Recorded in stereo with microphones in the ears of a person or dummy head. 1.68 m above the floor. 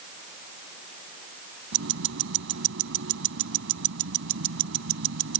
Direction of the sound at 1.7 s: 70° right (ahead or behind).